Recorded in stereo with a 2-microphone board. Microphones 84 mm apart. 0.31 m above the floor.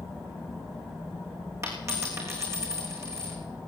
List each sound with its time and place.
1.6 s a dropped coin: 35° right (ahead or behind), 3.5 m